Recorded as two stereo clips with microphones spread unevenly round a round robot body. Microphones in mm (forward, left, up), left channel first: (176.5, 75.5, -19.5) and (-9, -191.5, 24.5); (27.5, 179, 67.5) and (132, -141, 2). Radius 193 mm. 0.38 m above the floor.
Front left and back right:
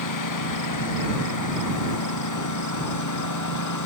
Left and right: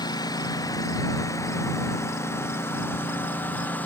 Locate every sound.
0.0 s a lawn mower: 30° left; by 3.9 s 25° left